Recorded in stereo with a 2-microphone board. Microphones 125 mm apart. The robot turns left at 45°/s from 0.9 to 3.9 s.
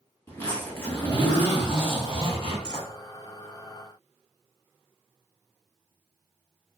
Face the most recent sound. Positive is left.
turn(degrees=10)